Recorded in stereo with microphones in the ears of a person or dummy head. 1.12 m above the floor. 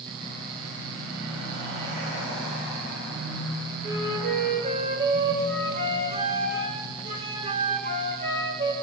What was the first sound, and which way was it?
A flute, 40° right (ahead or behind).